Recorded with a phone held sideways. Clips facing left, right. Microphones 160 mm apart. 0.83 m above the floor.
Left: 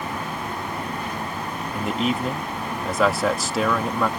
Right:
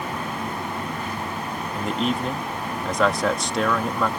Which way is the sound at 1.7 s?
5° left (ahead or behind).